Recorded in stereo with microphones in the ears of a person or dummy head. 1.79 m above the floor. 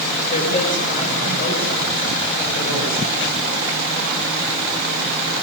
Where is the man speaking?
40° left (ahead or behind), 7.5 m; by 3.5 s 45° left (ahead or behind), 9 m.